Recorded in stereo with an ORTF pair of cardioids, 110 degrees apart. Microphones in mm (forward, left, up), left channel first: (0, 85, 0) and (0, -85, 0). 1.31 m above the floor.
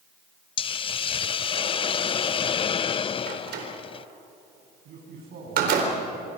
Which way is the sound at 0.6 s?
30° left.